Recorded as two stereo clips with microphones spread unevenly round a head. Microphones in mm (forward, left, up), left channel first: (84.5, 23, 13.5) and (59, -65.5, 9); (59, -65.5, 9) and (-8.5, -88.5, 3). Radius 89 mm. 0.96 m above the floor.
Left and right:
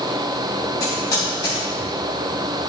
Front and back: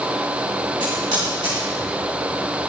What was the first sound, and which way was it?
Typing on a keyboard, 145° left.